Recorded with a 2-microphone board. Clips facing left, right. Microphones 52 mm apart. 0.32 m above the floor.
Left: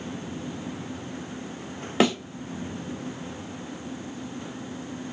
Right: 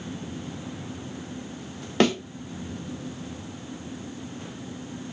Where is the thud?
5° left (ahead or behind), 1.3 m.